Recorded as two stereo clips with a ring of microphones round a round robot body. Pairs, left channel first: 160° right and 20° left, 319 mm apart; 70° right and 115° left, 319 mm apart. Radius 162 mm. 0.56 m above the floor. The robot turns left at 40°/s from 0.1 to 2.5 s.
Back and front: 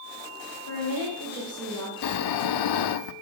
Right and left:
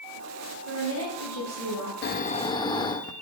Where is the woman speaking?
170° left, 3.5 m; by 1.9 s 120° left, 3.5 m.